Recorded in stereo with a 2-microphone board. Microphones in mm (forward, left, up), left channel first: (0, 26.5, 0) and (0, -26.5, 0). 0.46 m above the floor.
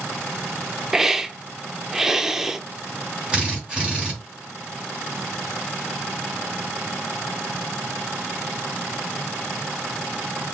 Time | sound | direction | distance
0.9 | a hiss | 5° right (ahead or behind) | 0.6 m
3.3 | a drill | 15° right (ahead or behind) | 3.5 m